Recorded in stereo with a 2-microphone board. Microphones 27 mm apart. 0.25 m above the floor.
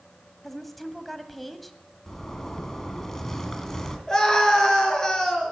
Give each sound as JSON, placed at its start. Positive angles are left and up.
{"t": 0.4, "sound": "a woman speaking", "side_deg": 0, "distance_m": 1.2}
{"t": 2.1, "sound": "a zipper", "side_deg": 20, "distance_m": 1.9}
{"t": 4.1, "sound": "a scream", "side_deg": 30, "distance_m": 3.5}